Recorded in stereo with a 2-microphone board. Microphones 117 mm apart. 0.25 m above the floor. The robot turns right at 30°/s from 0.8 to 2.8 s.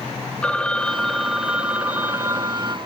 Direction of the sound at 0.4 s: 165° left.